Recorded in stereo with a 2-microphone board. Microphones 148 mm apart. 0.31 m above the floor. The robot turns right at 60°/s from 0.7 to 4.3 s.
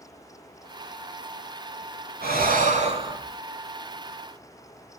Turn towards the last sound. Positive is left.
turn(degrees=40)